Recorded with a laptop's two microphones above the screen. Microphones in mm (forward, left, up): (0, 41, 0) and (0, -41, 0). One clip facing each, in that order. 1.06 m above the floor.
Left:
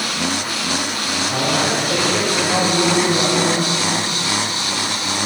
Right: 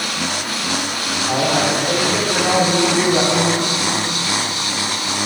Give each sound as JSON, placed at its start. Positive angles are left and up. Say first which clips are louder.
{"t": 1.3, "sound": "a man speaking", "louder": "right 3 dB", "side_deg": -80, "distance_m": 3.0}